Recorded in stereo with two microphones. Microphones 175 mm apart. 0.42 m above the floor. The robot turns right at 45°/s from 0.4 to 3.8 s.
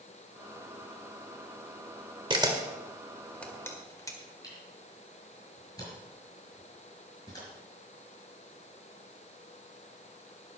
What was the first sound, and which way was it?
A camera shutter, 30° right (ahead or behind).